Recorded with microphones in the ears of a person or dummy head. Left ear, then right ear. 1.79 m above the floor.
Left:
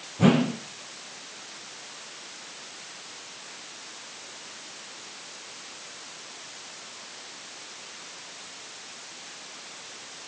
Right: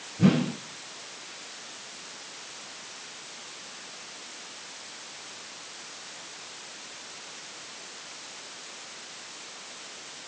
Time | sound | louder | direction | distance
0.2 | a whoosh | left 3 dB | 20° left (ahead or behind) | 0.7 m